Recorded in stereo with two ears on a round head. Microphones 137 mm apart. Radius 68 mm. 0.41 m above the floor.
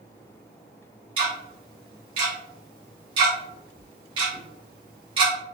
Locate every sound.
1.2 s ticking: 35° right (ahead or behind), 1.5 m